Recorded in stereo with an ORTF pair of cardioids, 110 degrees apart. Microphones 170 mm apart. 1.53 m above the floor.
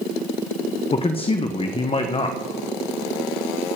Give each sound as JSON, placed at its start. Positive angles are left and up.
{"t": 0.9, "sound": "a man speaking", "azimuth_deg": 35, "distance_m": 1.0}